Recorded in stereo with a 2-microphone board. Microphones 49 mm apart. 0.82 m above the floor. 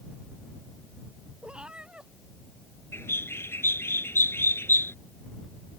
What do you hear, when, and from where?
1.4 s a cat meowing: 20° right (ahead or behind)
2.9 s a bird: 55° left (ahead or behind)